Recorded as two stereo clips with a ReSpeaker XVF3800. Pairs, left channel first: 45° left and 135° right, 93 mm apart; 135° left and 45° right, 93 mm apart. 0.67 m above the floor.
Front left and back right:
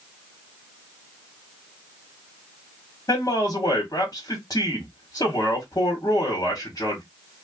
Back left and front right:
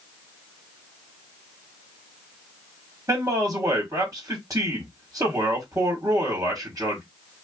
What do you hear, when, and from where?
3.1 s a man speaking: 5° left, 1.2 m